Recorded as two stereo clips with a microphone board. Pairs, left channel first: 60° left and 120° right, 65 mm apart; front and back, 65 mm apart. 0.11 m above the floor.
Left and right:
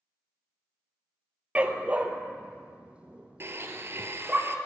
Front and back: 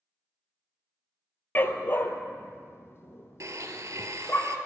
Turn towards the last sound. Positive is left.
turn(degrees=-160)